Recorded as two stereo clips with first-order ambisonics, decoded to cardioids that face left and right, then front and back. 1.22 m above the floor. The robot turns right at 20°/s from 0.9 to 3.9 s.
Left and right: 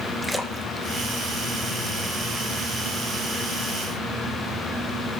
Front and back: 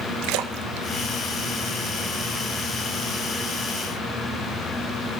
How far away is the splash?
About 0.8 m.